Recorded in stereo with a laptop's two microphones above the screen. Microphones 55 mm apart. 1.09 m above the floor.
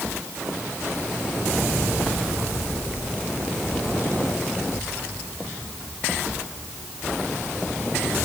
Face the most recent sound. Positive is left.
No sound to turn to.